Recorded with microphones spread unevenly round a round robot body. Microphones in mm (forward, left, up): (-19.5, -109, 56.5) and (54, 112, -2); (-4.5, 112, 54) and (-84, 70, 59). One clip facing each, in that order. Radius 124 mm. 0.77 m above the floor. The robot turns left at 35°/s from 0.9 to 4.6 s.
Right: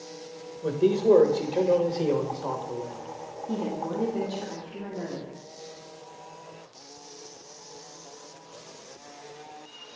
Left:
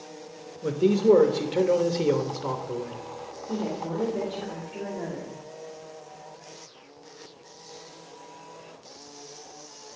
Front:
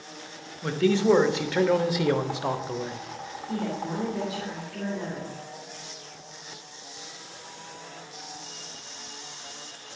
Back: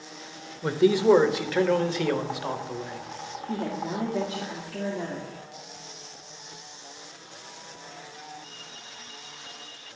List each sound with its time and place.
0.6 s a man speaking: 135° left, 1.0 m; by 3.0 s 60° left, 1.0 m
3.5 s a woman speaking: 110° right, 2.0 m; by 5.3 s 150° right, 2.0 m